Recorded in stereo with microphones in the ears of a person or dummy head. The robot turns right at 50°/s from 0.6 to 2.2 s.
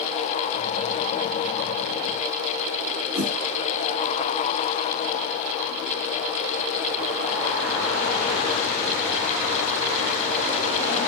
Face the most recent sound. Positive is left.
turn(degrees=0)  # may be behind; listen again after turning